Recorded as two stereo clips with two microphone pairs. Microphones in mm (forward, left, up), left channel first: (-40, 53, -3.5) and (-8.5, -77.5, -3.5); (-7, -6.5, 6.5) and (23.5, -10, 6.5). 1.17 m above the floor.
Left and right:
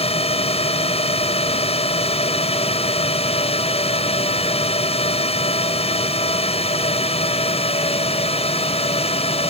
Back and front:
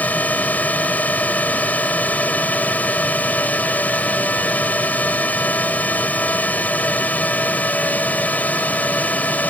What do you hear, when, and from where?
0.0 s a drone: 145° left